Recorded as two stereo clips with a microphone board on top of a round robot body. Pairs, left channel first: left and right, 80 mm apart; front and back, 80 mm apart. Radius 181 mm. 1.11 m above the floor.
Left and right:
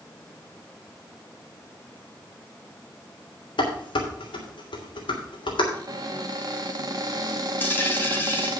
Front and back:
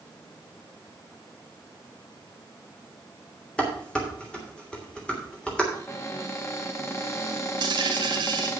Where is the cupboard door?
55° right, 2 m.